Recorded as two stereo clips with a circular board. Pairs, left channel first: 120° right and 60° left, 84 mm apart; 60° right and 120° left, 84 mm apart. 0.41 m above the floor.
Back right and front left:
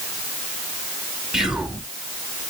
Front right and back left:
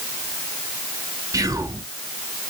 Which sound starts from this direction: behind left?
Whispering, at 1.3 s.